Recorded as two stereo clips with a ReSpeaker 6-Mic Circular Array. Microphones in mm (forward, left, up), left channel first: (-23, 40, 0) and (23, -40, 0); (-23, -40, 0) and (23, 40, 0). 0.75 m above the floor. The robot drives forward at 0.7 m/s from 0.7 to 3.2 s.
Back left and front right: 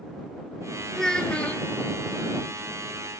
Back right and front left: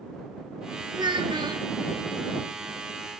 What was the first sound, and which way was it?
A child speaking, 35° left.